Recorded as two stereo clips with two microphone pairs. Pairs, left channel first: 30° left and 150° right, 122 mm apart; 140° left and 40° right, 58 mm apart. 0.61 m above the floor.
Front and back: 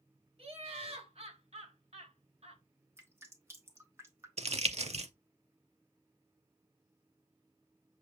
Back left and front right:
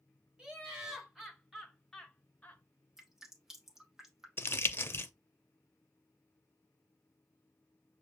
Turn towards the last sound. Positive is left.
turn(degrees=-175)